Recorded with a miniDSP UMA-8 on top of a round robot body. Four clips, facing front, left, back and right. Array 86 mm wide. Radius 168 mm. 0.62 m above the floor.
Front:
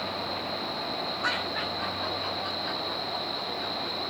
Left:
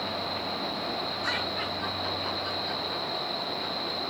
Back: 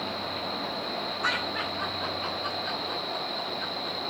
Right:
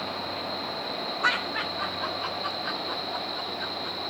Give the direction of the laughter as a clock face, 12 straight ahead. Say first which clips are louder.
Right 4 dB, back 1 dB; 3 o'clock.